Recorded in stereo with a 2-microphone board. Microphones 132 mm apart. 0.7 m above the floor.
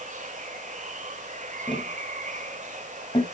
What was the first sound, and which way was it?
Running water, 65° right (ahead or behind).